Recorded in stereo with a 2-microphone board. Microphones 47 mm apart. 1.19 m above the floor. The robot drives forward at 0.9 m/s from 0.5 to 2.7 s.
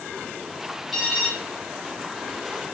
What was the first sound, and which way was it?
An alarm, centre (ahead or behind).